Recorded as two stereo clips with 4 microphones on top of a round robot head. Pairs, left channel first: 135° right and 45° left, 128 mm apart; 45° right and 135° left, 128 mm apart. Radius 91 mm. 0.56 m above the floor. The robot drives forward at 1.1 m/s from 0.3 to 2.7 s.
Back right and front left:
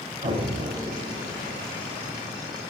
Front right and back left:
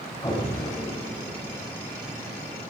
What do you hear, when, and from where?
0.2 s an explosion: 10° left, 7 m; by 1.7 s 15° left, 5.5 m